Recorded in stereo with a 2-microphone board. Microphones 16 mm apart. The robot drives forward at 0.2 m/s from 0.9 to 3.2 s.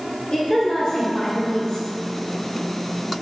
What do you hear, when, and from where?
0.3 s a woman speaking: 30° left (ahead or behind), 0.9 m; by 1.9 s 35° left (ahead or behind), 0.9 m